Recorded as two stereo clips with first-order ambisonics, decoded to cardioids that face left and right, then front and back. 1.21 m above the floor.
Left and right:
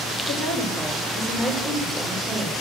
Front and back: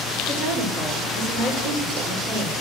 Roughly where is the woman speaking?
Behind.